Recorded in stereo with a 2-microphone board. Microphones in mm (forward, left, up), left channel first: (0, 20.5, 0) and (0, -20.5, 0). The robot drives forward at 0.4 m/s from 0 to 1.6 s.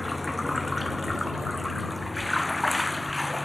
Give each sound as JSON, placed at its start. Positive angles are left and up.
{"t": 0.0, "sound": "running water", "side_deg": 0}